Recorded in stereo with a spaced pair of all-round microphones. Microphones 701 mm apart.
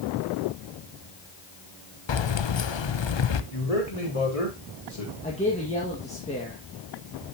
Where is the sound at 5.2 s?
10° left (ahead or behind), 2 m.